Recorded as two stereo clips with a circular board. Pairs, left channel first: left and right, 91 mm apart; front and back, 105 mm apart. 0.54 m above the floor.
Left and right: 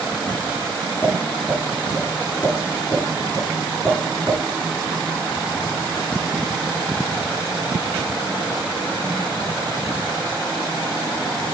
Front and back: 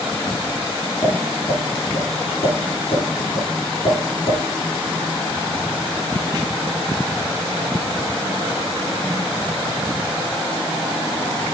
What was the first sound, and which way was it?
Tapping, 20° left.